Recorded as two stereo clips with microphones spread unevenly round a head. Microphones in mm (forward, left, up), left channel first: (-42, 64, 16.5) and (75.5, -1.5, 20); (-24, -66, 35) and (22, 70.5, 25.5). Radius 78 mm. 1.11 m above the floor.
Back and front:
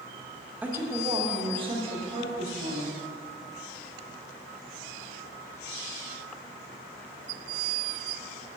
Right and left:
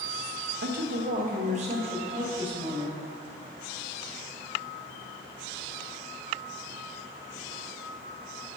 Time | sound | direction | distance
0.6 | a woman speaking | 50° left | 1.0 m